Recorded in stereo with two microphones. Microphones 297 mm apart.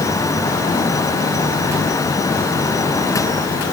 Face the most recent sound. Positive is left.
No sound to turn to.